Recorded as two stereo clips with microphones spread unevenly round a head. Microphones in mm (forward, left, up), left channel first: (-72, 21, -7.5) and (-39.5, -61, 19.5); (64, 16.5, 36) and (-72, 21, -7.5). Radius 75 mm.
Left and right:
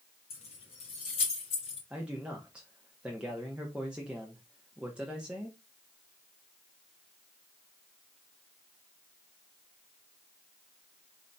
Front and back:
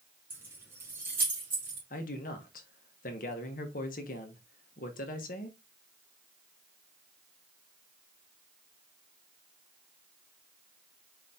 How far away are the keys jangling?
About 1.8 m.